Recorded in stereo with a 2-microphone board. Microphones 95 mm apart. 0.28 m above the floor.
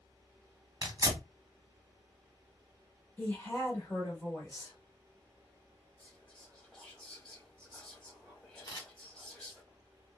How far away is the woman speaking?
About 1.5 m.